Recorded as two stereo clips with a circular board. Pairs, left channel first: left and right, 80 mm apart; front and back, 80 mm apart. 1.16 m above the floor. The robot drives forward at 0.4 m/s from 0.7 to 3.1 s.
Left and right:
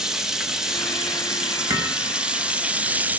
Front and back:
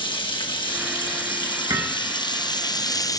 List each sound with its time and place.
0.0 s running water: 10° right, 1.4 m; by 3.2 s 25° right, 0.5 m
1.7 s hammering: 140° right, 4.5 m